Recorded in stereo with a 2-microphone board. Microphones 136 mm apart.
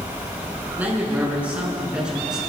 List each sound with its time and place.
0.8 s a man speaking: 15° right (ahead or behind), 6 m; by 2.4 s 5° right (ahead or behind), 6.5 m